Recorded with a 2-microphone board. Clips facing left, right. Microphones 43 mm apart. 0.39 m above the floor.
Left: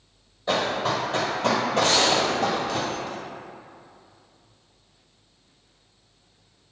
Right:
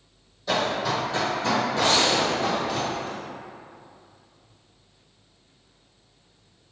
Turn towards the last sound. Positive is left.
turn(degrees=-10)  # may be behind; listen again after turning